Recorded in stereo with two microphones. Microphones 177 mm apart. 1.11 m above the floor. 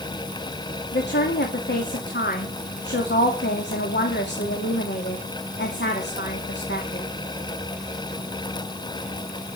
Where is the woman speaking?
80° left, 2.5 m.